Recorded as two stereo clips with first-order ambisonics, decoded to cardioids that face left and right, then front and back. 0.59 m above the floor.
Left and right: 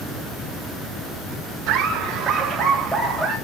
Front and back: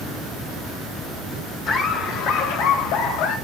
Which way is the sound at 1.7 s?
45° right.